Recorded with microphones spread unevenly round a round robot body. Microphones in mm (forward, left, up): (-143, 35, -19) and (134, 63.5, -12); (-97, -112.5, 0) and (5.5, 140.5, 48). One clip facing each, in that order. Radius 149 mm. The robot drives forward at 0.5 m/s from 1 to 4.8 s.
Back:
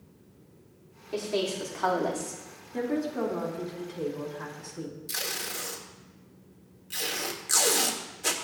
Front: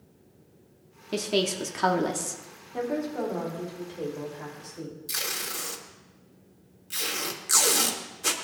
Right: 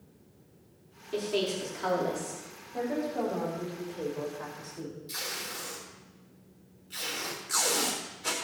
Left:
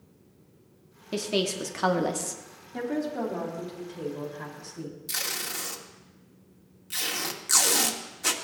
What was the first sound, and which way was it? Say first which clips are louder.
A woman speaking: front 2 dB, left 2 dB; 40° left.